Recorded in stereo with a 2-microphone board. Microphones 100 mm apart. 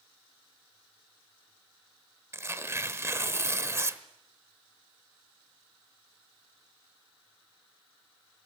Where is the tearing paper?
25° right (ahead or behind), 1.0 m.